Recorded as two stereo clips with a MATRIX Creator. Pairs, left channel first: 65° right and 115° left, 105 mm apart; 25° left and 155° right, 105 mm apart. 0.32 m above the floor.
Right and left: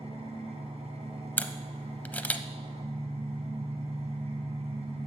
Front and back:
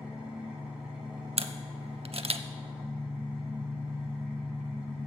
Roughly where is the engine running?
Behind left.